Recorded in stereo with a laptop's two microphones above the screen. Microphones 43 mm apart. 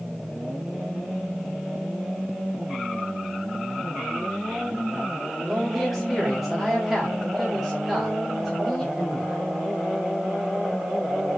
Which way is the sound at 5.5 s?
Centre (ahead or behind).